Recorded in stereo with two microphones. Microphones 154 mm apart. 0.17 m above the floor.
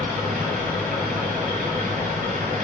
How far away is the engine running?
About 1.0 m.